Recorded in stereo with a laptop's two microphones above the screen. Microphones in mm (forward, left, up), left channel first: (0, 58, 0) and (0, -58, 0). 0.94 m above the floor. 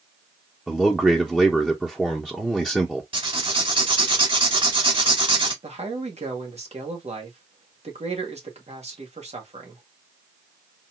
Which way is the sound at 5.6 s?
60° right (ahead or behind).